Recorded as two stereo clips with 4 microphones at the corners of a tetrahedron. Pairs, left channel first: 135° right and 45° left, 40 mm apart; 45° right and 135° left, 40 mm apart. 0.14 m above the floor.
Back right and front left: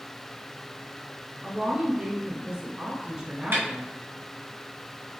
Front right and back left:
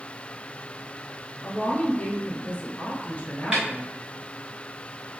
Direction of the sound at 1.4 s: 10° right.